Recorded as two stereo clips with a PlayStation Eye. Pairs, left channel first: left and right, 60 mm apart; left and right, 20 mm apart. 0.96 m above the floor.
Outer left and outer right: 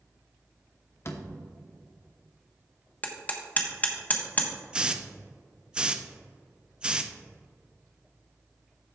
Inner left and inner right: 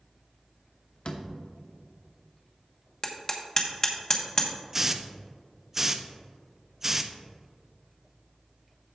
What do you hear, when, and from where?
1.1 s a door slam: 50° left (ahead or behind), 1.0 m
3.0 s hammering: 30° left (ahead or behind), 1.2 m
4.7 s a hiss: 15° right (ahead or behind), 0.5 m